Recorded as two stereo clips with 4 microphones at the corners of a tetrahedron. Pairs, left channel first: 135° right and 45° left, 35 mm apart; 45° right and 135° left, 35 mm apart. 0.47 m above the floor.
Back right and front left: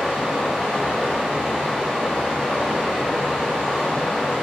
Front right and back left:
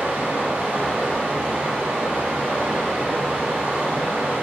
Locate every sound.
0.0 s running water: 145° left, 1.7 m